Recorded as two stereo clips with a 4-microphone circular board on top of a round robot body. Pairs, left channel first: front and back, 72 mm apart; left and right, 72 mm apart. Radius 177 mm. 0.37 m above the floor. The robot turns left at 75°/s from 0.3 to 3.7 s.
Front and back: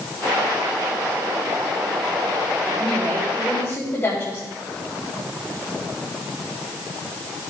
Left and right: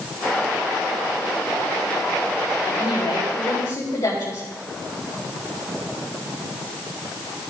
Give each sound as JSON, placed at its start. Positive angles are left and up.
{"t": 2.6, "sound": "a woman speaking", "azimuth_deg": 125, "distance_m": 4.0}